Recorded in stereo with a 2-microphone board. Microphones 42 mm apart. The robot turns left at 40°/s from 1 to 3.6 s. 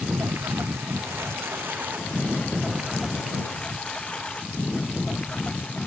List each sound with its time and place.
0.0 s a lawn mower: 85° right; by 5.9 s 30° left (ahead or behind)